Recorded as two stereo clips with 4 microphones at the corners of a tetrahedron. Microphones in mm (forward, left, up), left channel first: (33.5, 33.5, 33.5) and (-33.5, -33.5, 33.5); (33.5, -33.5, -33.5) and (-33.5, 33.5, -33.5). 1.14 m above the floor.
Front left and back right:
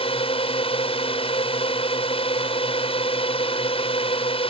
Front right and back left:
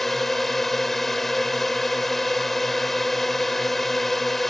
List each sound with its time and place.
0.0 s a drone: 40° left